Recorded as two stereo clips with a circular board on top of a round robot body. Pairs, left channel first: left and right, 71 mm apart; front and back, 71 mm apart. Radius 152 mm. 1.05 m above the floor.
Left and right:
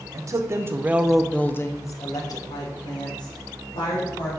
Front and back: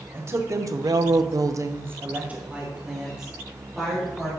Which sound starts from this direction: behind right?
A woman speaking, at 0.1 s.